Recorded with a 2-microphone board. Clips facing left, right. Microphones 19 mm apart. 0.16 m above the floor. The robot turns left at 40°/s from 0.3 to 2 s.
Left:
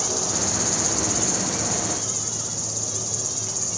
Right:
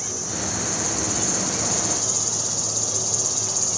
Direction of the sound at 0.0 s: 40° left.